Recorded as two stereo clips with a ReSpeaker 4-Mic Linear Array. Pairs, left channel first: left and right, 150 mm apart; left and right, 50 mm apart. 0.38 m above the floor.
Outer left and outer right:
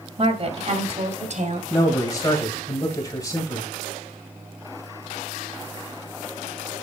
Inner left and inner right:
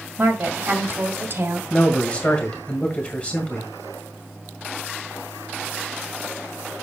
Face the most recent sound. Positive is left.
turn(degrees=25)  # may be behind; listen again after turning